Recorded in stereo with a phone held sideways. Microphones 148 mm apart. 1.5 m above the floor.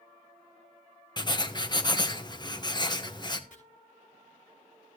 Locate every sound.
1.2 s writing: 30° left (ahead or behind), 1.0 m
3.5 s chopping: 65° left (ahead or behind), 6 m